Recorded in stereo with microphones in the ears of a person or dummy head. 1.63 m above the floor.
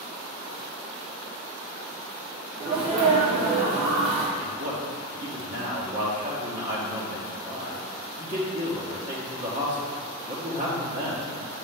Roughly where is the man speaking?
Right.